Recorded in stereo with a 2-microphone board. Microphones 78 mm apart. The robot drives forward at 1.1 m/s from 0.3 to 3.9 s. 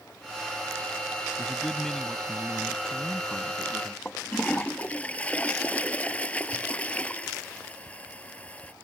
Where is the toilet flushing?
20° left (ahead or behind).